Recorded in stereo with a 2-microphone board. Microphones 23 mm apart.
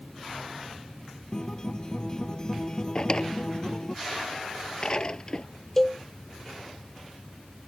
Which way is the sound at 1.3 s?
30° left (ahead or behind).